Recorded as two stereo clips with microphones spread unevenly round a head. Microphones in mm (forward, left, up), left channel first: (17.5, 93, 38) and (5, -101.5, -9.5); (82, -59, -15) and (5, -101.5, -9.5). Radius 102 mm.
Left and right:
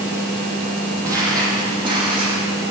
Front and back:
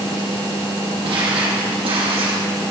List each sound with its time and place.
1.0 s footsteps: 175° right, 3 m; by 2.4 s 165° right, 5 m